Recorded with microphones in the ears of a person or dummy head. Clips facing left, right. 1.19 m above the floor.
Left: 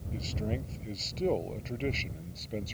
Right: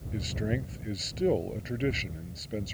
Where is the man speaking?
15° right (ahead or behind); by 2.8 s 10° right (ahead or behind).